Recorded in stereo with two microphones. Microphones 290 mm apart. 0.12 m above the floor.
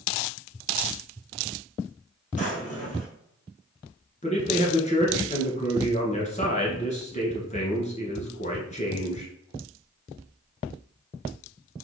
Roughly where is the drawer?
Left.